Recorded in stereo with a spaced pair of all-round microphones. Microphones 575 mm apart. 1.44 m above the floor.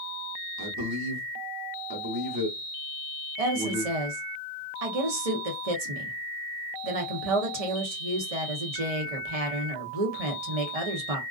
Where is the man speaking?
40° right (ahead or behind), 0.9 m.